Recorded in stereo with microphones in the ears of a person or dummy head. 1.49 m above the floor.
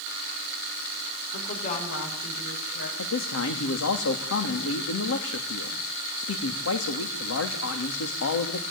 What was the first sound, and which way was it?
A woman speaking, 45° left (ahead or behind).